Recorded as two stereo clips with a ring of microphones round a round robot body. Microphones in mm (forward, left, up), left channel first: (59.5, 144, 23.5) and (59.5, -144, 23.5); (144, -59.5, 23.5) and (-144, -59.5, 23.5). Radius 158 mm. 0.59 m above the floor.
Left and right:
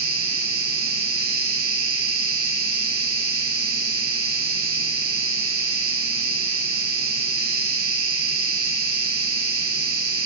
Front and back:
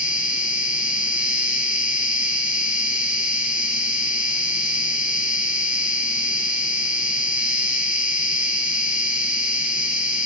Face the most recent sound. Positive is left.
turn(degrees=-100)